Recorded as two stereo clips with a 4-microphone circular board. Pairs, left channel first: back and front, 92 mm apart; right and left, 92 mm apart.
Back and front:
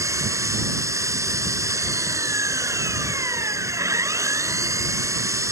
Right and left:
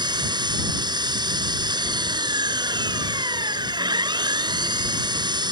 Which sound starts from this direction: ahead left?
An engine running, at 0.0 s.